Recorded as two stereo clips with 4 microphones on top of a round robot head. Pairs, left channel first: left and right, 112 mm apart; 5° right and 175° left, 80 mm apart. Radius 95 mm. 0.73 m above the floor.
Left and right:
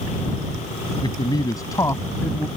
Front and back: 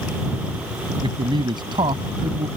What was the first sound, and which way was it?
A man speaking, 145° left.